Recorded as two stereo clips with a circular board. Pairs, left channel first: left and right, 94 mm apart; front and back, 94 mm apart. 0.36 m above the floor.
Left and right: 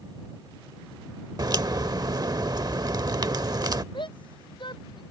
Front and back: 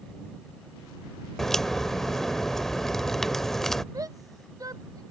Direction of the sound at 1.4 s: 85° right.